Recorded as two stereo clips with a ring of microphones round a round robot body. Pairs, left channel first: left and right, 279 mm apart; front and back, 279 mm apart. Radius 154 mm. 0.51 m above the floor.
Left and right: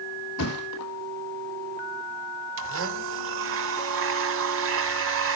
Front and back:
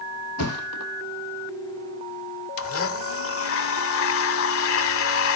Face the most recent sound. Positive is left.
turn(degrees=-40)